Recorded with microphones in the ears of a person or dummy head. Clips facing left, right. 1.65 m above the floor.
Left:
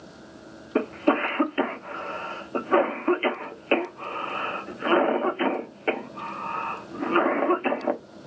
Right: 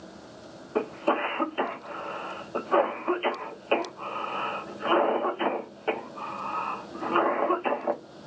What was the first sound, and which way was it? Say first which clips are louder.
A cough: left 4 dB; 30° left (ahead or behind).